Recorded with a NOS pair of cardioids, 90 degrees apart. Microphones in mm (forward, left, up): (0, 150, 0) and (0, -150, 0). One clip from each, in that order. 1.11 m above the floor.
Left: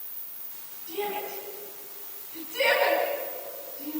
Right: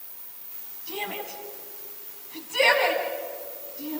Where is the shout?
60° right, 7.5 m.